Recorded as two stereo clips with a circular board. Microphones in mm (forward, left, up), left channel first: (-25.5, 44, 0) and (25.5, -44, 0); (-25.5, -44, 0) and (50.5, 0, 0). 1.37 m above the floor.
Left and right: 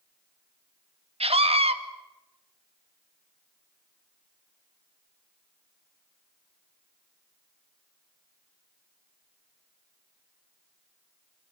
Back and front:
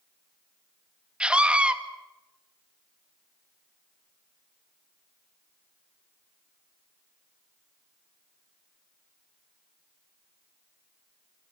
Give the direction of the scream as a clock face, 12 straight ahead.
2 o'clock.